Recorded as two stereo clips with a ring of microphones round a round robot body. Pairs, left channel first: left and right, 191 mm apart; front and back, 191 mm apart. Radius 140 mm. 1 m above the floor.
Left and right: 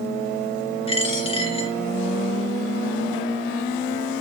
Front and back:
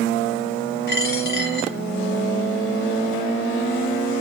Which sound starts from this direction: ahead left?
A dropped coin, at 0.9 s.